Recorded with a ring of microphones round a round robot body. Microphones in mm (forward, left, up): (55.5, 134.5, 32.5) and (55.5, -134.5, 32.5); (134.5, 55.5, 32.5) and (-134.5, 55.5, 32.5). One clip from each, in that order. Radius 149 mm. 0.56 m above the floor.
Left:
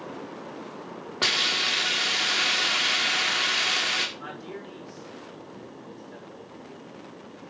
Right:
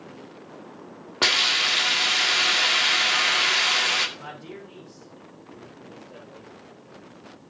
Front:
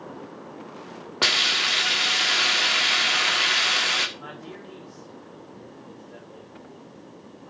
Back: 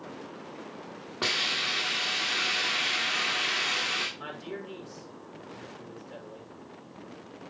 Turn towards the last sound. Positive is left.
turn(degrees=160)